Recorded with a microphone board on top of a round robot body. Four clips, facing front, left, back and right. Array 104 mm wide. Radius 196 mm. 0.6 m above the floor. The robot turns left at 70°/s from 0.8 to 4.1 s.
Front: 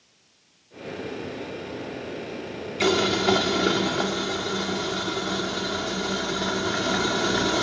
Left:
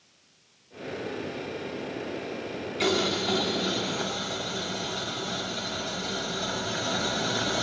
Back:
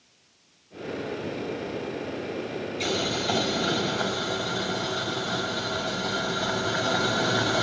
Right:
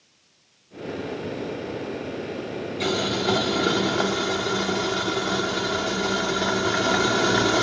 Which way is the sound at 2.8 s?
25° left.